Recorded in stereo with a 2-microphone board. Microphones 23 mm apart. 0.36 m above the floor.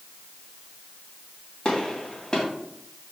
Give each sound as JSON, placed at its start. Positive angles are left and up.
{"t": 1.6, "sound": "a gunshot", "side_deg": 30, "distance_m": 2.5}